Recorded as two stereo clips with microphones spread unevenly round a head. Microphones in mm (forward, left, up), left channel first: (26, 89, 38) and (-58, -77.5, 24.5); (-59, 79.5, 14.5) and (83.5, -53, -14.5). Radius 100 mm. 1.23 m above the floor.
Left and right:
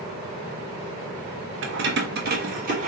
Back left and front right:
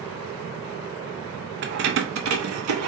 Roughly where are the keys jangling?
Right.